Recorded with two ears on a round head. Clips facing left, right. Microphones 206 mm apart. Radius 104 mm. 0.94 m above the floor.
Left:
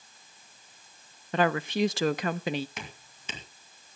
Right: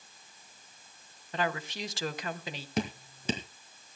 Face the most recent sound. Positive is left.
turn(degrees=-35)  # may be behind; listen again after turning